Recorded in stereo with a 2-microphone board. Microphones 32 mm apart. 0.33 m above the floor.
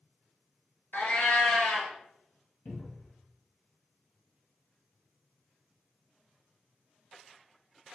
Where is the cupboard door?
55° left (ahead or behind), 1.3 m.